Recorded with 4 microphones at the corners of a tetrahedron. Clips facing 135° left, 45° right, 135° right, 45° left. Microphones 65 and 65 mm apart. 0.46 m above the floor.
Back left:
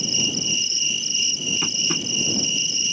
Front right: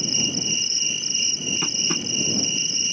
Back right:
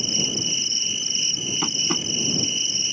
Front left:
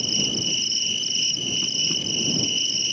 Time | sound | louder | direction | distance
0.0 | an insect | back left 1 dB, front left 1 dB | 75° right | ?
1.6 | tapping | even, back right 3 dB | 135° right | ?